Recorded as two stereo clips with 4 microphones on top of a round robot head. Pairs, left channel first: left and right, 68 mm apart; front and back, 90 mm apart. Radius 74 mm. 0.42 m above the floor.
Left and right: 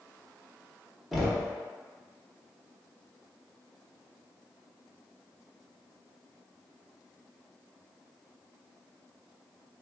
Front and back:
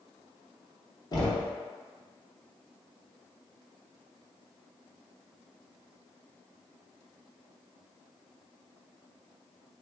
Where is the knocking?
5° right, 1.0 m.